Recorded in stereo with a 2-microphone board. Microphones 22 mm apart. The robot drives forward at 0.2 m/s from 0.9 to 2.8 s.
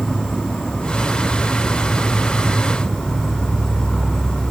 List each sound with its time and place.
0.0 s an insect: 75° left (ahead or behind), 3.5 m; by 4.5 s 70° left (ahead or behind), 3.5 m